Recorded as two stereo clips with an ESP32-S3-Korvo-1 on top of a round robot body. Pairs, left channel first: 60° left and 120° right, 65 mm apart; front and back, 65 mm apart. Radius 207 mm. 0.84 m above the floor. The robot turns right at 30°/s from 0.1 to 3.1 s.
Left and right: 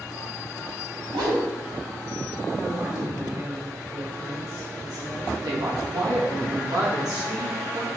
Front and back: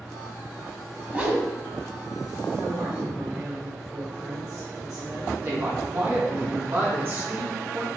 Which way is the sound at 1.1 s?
115° right.